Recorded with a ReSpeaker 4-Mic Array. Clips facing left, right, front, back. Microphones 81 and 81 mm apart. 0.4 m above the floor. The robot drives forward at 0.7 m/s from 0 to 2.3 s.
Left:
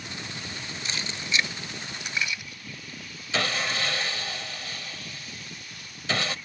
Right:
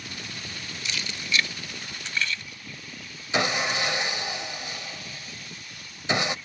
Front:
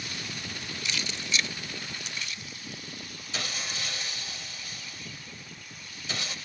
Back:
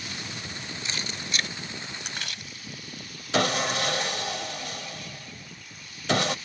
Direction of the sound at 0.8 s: 130° left.